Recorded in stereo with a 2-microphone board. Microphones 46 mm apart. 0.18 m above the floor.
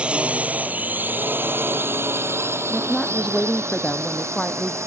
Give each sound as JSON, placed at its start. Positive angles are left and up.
{"t": 0.0, "sound": "a drone", "side_deg": -25}
{"t": 2.7, "sound": "a woman speaking", "side_deg": 15}